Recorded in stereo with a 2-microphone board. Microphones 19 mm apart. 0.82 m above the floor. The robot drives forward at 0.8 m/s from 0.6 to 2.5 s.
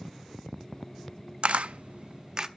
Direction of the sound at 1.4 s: 65° right (ahead or behind).